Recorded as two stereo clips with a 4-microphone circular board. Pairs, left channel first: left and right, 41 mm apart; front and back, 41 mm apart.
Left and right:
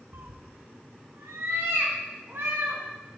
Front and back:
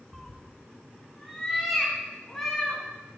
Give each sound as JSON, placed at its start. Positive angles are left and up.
{"t": 0.1, "sound": "a cat meowing", "azimuth_deg": -90, "distance_m": 0.8}